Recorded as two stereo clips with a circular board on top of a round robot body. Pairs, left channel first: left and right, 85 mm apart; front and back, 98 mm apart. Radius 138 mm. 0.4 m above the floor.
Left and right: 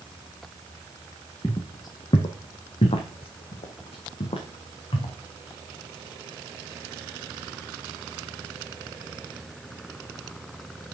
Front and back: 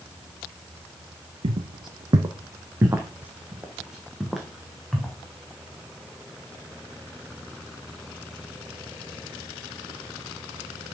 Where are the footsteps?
145° left, 1.0 m; by 5.2 s 85° left, 2.5 m.